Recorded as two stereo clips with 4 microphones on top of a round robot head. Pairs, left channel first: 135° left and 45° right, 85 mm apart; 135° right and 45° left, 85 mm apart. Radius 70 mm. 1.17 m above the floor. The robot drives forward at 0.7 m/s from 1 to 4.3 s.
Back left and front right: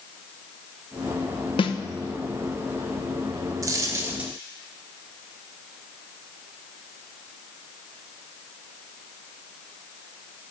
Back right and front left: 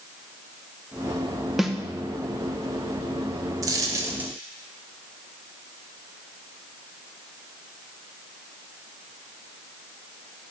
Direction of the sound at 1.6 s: 135° left.